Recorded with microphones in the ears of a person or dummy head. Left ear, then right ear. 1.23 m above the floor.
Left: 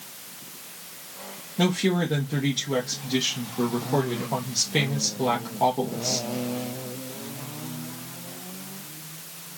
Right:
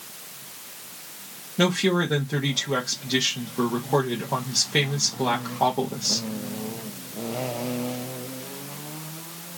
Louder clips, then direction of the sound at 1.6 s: Right 3 dB; 15° right (ahead or behind).